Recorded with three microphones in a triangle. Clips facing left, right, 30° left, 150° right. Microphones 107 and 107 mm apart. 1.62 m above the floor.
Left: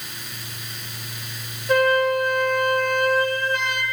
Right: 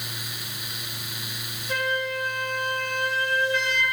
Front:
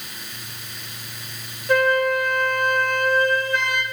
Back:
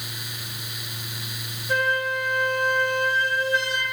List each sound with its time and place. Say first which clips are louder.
1.7 s a flute: left 10 dB, front 6 dB; 60° left, 1.0 m